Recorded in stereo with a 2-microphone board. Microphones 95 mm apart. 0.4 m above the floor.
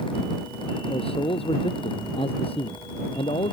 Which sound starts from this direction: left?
A man speaking, at 0.9 s.